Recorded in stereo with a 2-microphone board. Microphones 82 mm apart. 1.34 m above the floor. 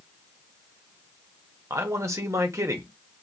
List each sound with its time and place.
1.7 s a man speaking: 35° right (ahead or behind), 1.1 m